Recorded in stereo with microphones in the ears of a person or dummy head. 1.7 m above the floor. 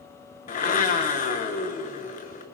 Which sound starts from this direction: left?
A blender, at 0.5 s.